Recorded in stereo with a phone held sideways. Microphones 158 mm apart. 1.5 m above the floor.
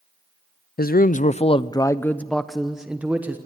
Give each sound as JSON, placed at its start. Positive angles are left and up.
{"t": 0.8, "sound": "a man speaking", "side_deg": 70, "distance_m": 0.6}